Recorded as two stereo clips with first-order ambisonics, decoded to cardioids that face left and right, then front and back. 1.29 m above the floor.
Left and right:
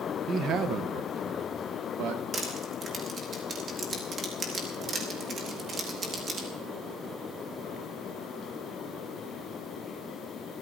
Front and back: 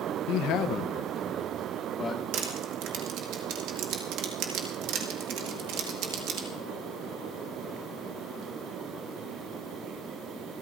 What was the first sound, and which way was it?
A man speaking, 25° right.